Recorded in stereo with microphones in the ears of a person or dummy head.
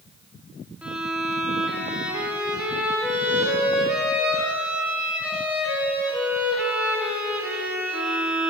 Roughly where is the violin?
Centre.